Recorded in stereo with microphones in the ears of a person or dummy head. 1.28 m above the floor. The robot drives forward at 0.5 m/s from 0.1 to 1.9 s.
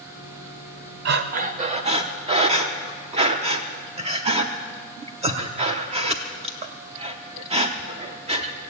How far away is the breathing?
About 0.6 m.